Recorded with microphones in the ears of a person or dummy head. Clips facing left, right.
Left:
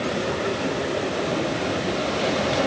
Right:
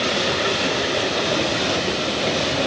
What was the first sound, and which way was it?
Only background noise.